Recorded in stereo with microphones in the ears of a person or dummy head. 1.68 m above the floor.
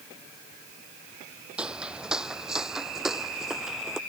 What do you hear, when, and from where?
1.6 s footsteps: 5° right (ahead or behind); by 4.0 s centre (ahead or behind)